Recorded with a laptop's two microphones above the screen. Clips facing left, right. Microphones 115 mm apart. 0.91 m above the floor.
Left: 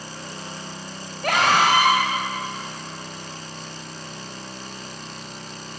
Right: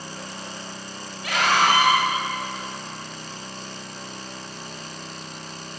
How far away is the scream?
About 4 m.